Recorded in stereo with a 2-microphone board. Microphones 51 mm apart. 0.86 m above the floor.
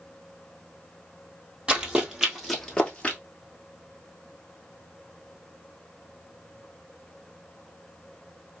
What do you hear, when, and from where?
1.7 s running footsteps: 20° right (ahead or behind), 1.5 m; by 3.2 s 25° left (ahead or behind), 1.0 m